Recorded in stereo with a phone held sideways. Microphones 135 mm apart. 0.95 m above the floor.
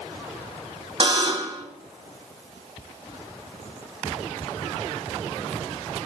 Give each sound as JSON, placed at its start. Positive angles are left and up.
{"t": 1.0, "sound": "a buzzer", "side_deg": -35, "distance_m": 1.0}